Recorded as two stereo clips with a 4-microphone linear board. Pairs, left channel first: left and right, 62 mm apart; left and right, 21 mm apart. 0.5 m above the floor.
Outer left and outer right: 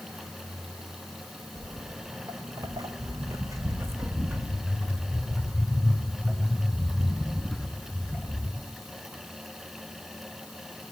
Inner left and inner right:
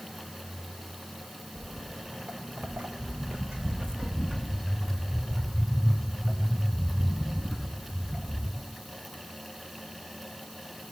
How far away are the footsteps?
About 2.5 m.